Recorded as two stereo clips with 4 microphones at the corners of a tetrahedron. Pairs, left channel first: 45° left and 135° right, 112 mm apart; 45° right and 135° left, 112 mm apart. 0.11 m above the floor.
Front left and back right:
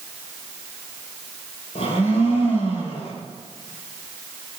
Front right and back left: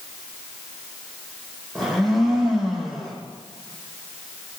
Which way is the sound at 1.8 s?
45° left.